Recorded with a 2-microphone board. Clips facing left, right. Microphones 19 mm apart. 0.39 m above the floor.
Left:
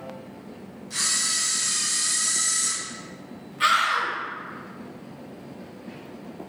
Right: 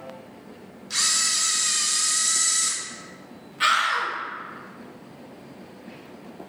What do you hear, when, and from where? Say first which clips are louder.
0.9 s a camera shutter: right 2 dB; 50° right (ahead or behind), 0.7 m
3.6 s a scream: even; 15° right (ahead or behind), 0.8 m